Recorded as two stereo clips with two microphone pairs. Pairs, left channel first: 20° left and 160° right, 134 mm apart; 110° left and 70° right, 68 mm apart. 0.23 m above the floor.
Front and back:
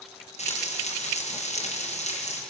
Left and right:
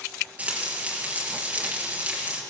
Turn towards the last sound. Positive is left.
turn(degrees=-5)